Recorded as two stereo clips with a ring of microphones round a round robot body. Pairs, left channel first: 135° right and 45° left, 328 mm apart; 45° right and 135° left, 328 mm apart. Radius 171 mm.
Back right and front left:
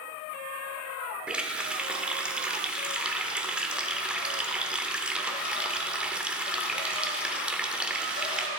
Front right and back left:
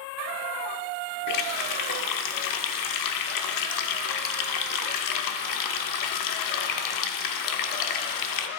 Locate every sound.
1.3 s a running tap: 40° right, 0.8 m